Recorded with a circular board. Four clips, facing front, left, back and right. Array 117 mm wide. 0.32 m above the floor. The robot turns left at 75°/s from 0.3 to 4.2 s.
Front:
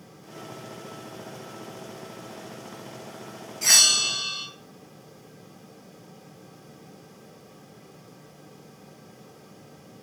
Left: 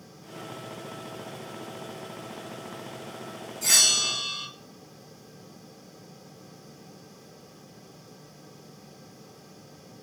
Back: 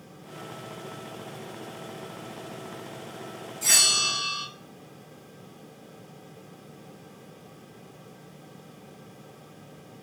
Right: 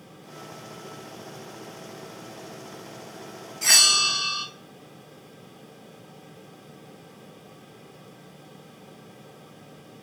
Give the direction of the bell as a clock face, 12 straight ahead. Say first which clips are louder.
Right 6 dB, front 1 dB; 2 o'clock.